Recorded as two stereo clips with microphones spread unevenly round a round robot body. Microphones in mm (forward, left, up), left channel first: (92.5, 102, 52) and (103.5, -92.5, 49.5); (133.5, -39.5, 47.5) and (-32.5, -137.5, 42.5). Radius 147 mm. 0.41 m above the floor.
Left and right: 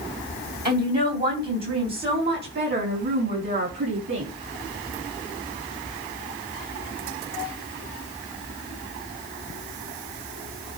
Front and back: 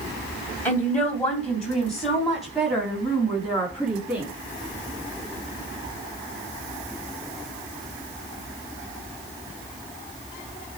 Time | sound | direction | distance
0.7 | a woman speaking | 50° right | 2.5 m